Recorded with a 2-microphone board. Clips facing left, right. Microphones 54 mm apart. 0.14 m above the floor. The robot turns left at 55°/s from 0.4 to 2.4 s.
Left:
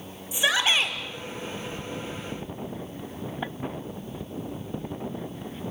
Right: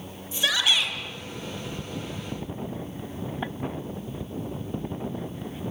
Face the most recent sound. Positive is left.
turn(degrees=50)